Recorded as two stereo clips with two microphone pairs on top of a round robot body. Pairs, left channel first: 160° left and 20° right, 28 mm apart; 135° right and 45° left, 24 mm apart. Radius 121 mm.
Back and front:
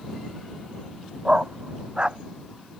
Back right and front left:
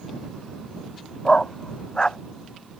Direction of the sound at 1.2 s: 80° right.